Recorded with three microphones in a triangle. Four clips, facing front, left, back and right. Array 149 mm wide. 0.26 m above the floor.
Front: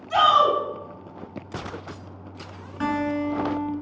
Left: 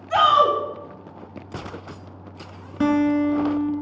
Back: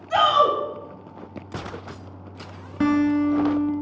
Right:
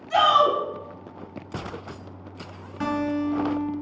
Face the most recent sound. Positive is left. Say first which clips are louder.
# left 7 dB, back 6 dB
turn(degrees=140)